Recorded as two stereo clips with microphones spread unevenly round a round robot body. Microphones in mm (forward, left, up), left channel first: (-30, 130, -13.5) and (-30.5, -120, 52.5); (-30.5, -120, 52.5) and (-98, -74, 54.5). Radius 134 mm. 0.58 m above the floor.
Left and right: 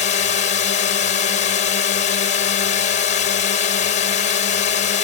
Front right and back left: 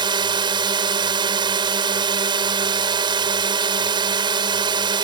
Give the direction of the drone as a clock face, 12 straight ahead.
7 o'clock.